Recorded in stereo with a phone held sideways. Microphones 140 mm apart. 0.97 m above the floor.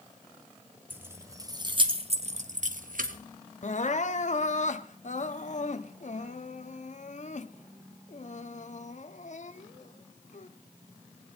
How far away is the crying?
About 0.6 m.